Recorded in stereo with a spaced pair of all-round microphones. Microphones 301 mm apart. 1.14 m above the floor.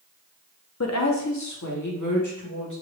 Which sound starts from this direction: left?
A woman speaking, at 0.8 s.